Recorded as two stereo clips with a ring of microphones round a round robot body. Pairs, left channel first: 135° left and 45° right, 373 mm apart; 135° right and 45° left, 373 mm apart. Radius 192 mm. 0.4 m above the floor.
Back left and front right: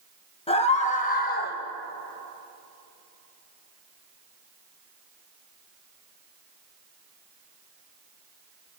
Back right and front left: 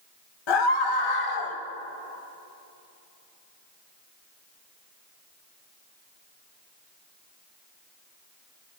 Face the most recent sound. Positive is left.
turn(degrees=-165)